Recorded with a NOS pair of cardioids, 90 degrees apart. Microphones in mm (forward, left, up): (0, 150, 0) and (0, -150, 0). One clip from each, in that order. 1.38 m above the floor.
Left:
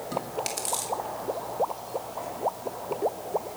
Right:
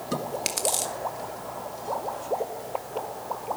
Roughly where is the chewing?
Ahead right.